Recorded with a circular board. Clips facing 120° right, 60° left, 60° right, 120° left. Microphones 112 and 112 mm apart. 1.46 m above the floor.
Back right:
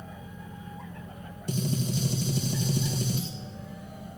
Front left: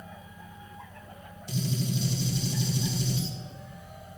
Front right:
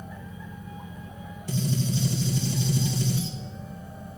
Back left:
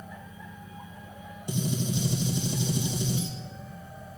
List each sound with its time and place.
1.5 s a gunshot: 170° right, 1.8 m